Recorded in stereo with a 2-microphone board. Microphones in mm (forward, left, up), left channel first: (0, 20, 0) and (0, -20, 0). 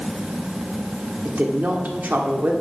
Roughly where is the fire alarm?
No fire alarm in this recording.